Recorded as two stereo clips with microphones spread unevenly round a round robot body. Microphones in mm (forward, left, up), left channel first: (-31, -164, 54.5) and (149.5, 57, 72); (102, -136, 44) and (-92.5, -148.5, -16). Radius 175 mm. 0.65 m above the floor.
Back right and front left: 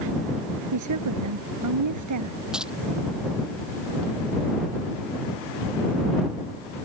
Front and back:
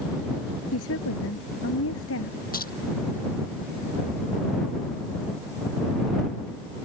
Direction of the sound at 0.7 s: 30° left.